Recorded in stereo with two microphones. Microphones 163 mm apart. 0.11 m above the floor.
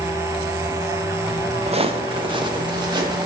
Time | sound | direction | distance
1.7 | footsteps | 40° right (ahead or behind) | 0.7 m